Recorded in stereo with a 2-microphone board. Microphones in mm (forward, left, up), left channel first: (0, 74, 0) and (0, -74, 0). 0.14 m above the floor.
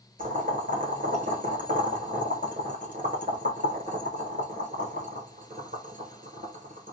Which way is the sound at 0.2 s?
65° right (ahead or behind).